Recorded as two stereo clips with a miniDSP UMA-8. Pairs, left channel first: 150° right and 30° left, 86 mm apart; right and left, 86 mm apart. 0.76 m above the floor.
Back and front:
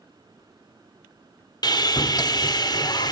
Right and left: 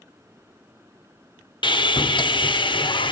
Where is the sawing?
115° right, 0.9 m.